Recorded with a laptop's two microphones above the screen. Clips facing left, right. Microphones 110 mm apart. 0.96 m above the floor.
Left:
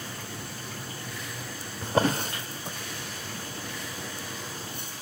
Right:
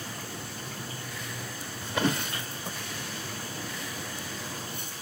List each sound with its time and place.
1.8 s a drawer: 40° left (ahead or behind), 0.8 m